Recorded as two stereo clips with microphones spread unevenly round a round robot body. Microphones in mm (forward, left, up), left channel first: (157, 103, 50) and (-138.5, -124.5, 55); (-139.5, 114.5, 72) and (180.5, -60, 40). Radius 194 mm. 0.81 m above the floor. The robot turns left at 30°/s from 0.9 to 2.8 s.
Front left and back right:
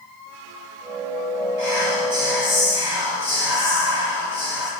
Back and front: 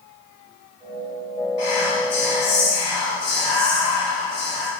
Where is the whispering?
175° left, 1.9 m; by 4.7 s 140° left, 1.9 m.